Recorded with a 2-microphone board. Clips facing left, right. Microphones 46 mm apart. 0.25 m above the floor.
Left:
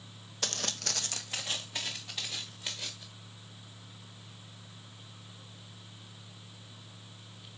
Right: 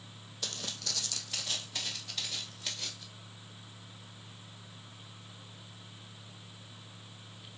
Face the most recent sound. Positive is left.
turn(degrees=10)  # may be behind; listen again after turning